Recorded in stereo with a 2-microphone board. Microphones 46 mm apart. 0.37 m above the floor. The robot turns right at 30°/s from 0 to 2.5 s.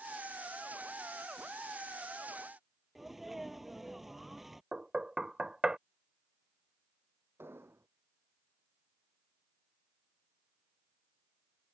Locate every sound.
3.0 s a sneeze: 5° right (ahead or behind)
4.7 s knocking: 20° right (ahead or behind)
7.4 s an explosion: 60° right (ahead or behind)